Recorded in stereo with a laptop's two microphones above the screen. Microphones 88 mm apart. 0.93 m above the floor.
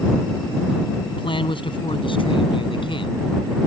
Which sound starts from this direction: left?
A man speaking, at 1.1 s.